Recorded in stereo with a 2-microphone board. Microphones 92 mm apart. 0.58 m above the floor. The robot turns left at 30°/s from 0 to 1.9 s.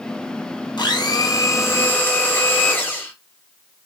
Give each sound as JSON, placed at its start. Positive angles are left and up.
{"t": 0.8, "sound": "a blender", "azimuth_deg": 55, "distance_m": 0.7}